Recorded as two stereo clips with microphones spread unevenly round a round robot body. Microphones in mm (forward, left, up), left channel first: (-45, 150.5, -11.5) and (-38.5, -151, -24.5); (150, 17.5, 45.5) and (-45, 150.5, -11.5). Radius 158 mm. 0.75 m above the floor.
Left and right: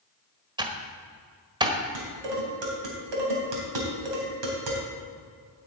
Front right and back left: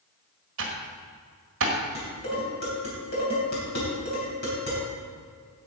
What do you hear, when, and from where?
0.6 s typing on a keyboard: 165° right, 1.4 m
1.9 s dishes clattering: 95° right, 3 m